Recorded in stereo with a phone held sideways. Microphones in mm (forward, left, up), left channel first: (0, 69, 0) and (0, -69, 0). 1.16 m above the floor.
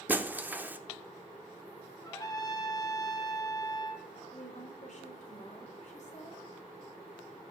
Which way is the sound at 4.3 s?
60° left (ahead or behind).